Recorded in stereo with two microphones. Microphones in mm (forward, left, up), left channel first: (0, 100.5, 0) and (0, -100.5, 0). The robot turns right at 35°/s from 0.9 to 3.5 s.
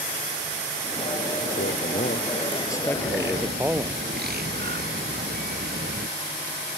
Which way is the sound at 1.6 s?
125° left.